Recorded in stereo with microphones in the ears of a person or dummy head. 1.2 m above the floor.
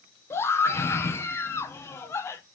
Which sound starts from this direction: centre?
A scream, at 0.3 s.